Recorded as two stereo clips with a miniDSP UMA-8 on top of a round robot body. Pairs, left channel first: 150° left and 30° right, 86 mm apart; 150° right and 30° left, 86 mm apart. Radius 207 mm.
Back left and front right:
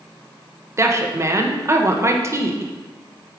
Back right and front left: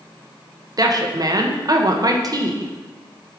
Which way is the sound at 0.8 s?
10° left.